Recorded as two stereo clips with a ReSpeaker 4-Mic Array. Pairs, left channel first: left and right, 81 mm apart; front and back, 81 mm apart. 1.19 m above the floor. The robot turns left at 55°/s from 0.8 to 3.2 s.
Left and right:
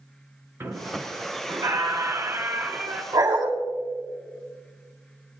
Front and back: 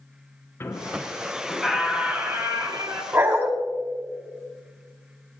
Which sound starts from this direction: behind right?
A dog barking, at 3.1 s.